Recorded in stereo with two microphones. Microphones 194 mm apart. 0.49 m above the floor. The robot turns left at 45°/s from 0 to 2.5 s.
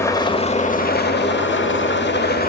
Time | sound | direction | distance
0.0 | an engine running | 165° left | 1.0 m